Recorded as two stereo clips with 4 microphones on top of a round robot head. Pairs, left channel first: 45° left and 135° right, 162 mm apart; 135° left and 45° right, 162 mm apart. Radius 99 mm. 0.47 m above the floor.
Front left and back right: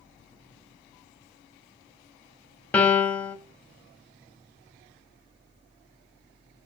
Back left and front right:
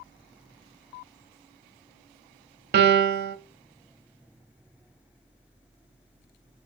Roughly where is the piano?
Ahead right.